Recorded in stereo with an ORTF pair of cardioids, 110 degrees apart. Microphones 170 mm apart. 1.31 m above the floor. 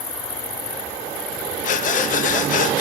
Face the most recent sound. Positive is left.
turn(degrees=50)